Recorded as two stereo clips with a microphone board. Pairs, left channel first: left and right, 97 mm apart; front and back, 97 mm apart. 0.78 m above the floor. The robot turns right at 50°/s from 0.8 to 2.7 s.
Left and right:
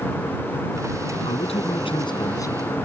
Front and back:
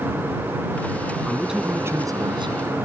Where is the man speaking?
85° left; by 2.6 s 155° left.